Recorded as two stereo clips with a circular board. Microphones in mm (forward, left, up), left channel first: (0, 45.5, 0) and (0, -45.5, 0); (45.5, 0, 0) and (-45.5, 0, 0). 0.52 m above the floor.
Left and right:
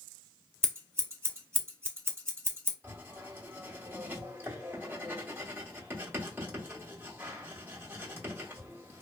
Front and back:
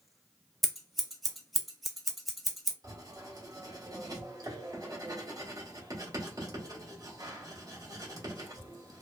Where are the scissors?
90° right, 0.6 m.